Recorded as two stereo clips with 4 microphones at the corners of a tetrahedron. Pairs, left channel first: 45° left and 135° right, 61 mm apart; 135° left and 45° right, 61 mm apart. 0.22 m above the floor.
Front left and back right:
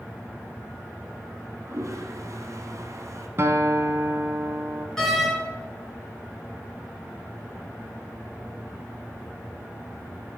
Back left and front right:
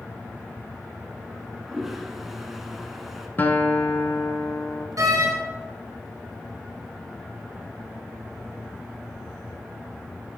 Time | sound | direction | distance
1.3 | a toilet flushing | 130° right | 1.2 m
3.4 | a guitar | 175° right | 0.8 m
5.0 | a door slam | 35° right | 2.5 m